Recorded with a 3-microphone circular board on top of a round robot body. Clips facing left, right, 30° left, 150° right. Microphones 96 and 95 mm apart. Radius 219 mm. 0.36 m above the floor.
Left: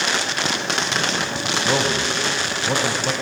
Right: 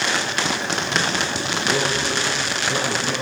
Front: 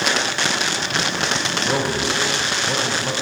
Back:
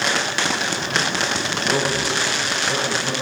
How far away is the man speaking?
About 3 m.